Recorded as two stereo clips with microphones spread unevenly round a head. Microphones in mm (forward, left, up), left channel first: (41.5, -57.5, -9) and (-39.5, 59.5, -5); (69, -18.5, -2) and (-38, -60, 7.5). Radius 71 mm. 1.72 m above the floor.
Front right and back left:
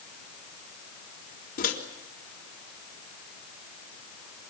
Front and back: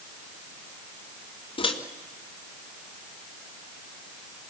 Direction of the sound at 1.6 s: 25° right.